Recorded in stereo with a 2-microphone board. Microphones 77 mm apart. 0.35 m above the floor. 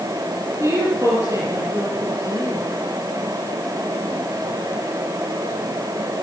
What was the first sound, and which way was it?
A woman speaking, 45° right (ahead or behind).